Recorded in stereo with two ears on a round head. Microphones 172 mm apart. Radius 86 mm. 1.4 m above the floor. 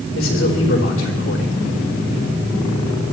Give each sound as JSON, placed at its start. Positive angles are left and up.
{"t": 0.1, "sound": "a man speaking", "side_deg": 75, "distance_m": 4.5}